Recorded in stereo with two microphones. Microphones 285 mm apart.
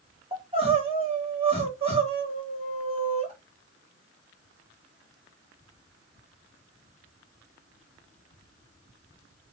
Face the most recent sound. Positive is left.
turn(degrees=-20)  # may be behind; listen again after turning